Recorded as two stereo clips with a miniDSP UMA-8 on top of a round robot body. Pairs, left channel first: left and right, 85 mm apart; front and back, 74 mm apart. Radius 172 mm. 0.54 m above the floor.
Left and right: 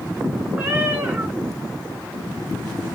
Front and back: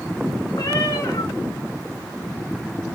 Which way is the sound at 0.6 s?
25° right.